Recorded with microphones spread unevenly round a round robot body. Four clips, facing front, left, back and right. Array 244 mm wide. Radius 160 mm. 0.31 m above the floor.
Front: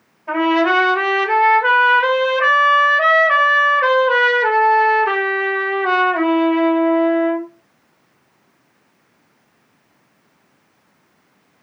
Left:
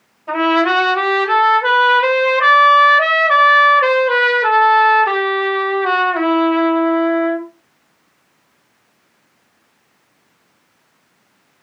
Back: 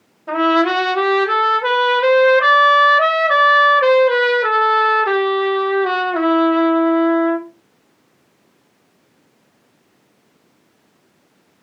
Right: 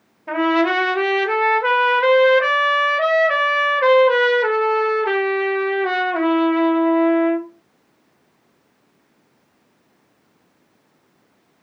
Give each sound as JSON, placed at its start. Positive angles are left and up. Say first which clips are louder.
{"t": 0.3, "sound": "a trumpet", "louder": "left 3 dB, even", "azimuth_deg": -145, "distance_m": 0.9}